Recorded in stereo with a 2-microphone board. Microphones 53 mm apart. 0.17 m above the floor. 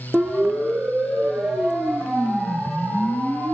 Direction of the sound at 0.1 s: 10° right (ahead or behind).